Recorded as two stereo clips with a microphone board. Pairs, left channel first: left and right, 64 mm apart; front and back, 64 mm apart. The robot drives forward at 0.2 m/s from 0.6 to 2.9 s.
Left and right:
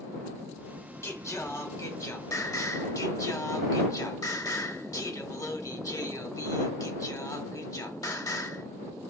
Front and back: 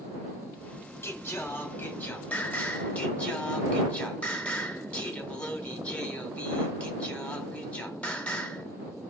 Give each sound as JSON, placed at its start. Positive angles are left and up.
{"t": 1.0, "sound": "singing", "azimuth_deg": 50, "distance_m": 1.1}